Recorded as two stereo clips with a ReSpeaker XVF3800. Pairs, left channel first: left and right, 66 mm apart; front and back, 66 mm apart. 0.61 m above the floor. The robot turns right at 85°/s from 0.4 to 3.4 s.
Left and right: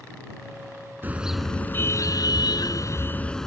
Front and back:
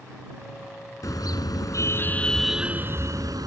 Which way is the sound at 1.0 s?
30° right.